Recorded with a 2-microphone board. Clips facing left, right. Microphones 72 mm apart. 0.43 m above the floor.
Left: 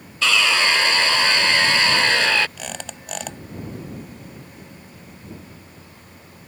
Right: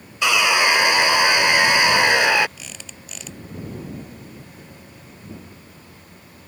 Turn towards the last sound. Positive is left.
turn(degrees=70)  # may be behind; listen again after turning